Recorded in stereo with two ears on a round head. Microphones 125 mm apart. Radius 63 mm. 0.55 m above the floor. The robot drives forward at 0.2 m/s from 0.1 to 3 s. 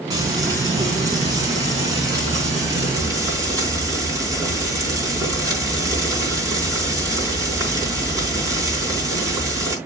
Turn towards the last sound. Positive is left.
turn(degrees=-25)  # may be behind; listen again after turning